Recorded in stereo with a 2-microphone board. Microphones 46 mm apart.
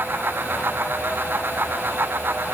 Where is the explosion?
No explosion in this recording.